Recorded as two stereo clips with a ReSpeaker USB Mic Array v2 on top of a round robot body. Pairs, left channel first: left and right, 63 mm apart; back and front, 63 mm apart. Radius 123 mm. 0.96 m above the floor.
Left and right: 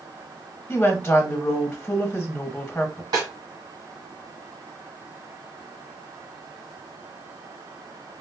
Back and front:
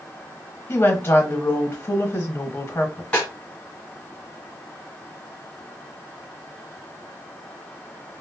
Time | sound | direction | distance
0.7 | a woman speaking | 140° left | 1.1 m
3.1 | a snare drum | 100° right | 1.2 m